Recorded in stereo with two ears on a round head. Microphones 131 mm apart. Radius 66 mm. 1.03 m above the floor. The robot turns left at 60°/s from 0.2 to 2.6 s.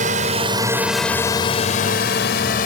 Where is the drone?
55° right (ahead or behind); by 2.7 s 65° left (ahead or behind).